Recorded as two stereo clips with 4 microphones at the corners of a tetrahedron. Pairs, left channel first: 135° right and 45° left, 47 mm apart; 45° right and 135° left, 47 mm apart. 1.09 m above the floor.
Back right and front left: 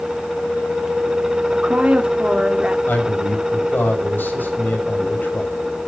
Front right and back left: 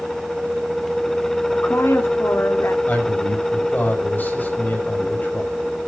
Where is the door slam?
I don't hear a door slam.